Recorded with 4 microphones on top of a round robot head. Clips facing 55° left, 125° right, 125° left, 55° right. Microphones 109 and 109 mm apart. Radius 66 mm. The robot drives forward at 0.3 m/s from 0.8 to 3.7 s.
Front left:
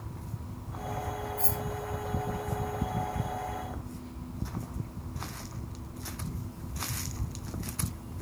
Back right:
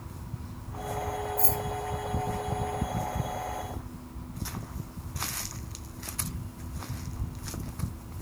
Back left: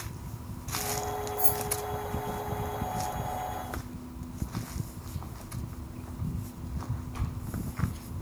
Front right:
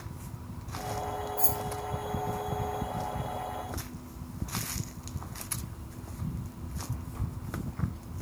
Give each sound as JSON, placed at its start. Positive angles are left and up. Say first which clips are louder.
{"t": 1.4, "sound": "keys jangling", "louder": "back right 4 dB, back left 1 dB", "azimuth_deg": -75, "distance_m": 1.5}